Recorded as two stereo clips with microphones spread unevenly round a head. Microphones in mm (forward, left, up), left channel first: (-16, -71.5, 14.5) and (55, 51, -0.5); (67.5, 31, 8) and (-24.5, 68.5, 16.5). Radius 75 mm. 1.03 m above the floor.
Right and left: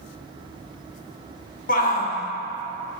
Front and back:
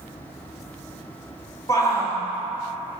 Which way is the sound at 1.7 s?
90° right.